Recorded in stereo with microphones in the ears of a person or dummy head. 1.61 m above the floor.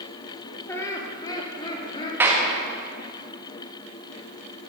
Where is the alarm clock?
I don't hear an alarm clock.